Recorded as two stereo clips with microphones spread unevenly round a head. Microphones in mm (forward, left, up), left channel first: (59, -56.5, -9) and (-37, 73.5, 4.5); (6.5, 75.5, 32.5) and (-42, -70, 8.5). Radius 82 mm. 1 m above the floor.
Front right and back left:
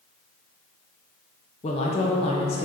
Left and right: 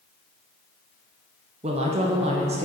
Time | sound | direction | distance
1.6 | a woman speaking | 90° right | 0.7 m